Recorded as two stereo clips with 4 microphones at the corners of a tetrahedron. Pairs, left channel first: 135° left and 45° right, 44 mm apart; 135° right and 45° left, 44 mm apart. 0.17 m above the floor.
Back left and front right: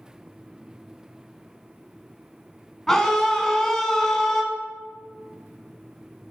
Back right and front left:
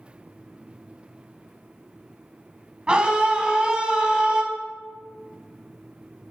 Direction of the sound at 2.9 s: 70° left.